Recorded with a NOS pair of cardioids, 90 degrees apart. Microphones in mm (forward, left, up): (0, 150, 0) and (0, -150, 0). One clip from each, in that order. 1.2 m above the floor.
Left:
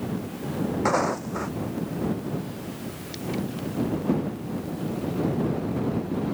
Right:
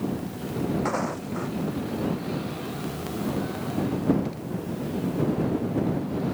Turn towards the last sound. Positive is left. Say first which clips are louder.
# left 4 dB
turn(degrees=35)